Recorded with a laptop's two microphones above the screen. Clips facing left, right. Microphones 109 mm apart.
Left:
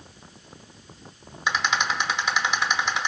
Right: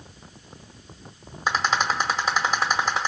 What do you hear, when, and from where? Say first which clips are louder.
1.5 s a rattle: right 2 dB; 40° right (ahead or behind), 1.0 m